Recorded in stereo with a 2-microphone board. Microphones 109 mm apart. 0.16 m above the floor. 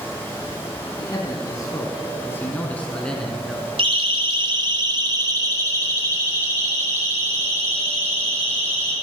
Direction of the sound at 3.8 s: 55° right (ahead or behind).